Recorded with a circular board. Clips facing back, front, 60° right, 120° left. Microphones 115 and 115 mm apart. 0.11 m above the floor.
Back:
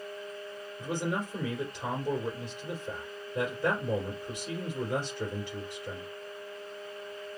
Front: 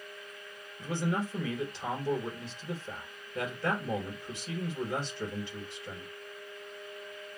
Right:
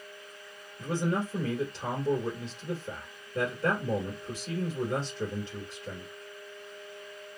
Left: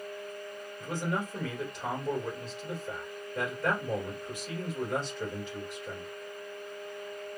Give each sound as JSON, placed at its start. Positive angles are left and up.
{"t": 0.8, "sound": "a man speaking", "azimuth_deg": -110, "distance_m": 1.8}